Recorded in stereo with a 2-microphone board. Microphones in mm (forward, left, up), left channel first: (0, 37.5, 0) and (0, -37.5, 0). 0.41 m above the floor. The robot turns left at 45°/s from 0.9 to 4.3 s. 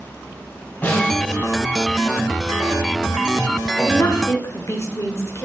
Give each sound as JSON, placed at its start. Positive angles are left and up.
{"t": 0.8, "sound": "a snare drum", "side_deg": 25, "distance_m": 3.0}
{"t": 3.8, "sound": "a woman speaking", "side_deg": 40, "distance_m": 1.2}